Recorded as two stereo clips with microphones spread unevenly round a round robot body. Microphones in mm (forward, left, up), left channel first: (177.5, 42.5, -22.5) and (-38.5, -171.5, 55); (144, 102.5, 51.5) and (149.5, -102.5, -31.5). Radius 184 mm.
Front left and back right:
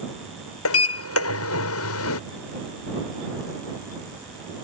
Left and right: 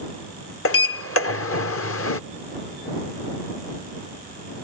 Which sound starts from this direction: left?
A sliding door, at 0.7 s.